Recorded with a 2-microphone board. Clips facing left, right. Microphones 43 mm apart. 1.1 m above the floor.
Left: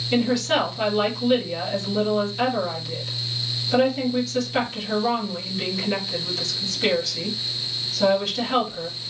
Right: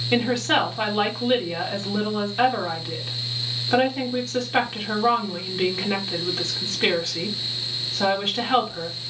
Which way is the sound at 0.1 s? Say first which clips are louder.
Even; 35° right (ahead or behind).